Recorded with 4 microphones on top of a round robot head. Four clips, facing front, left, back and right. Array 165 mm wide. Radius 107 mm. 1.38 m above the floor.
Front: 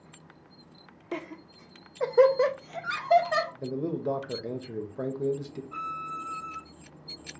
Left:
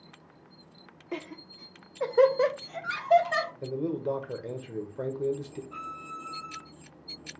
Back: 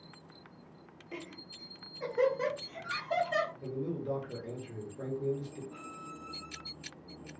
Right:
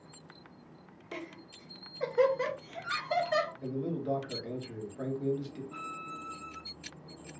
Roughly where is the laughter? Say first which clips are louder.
Left 5 dB, front 9 dB; ahead.